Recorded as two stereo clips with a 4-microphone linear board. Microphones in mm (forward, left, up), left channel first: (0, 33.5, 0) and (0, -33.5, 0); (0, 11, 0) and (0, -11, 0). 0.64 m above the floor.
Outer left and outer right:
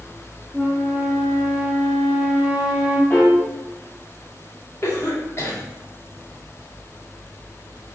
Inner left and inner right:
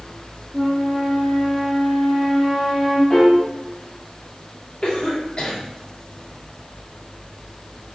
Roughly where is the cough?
Left.